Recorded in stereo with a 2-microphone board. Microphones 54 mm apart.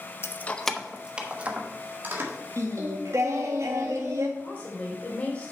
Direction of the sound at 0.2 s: 45° left (ahead or behind).